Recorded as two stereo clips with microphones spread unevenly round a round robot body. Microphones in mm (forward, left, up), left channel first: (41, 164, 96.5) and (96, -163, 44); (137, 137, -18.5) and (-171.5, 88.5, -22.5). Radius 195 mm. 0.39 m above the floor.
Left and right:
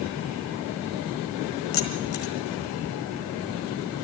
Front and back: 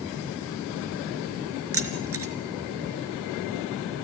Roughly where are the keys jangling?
Behind left.